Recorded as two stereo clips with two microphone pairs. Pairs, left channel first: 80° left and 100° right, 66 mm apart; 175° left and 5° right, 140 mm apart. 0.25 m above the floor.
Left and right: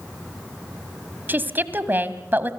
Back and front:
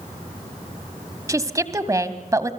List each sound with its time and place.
1.3 s a woman speaking: 60° right, 1.4 m